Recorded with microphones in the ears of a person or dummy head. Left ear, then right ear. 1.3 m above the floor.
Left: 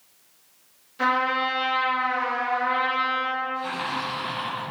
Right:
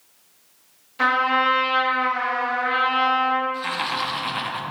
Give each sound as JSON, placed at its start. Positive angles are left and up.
{"t": 1.0, "sound": "a trumpet", "side_deg": -20, "distance_m": 1.9}
{"t": 3.5, "sound": "laughter", "side_deg": -30, "distance_m": 1.6}